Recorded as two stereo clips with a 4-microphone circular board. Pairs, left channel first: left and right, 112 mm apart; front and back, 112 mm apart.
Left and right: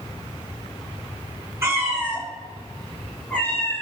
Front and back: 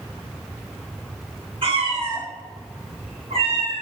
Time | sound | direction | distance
1.6 | a cat meowing | 150° right | 1.6 m